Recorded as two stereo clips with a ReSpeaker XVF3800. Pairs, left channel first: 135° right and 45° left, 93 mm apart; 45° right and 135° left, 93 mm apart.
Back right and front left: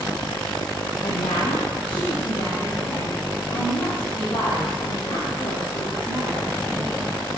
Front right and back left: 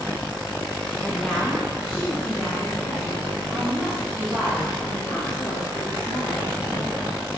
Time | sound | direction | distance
1.0 | a woman speaking | 125° right | 0.8 m